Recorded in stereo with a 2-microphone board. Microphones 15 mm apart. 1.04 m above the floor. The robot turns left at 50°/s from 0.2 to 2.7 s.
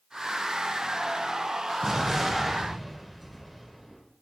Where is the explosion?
135° right, 1.6 m; by 4.0 s straight behind, 1.6 m.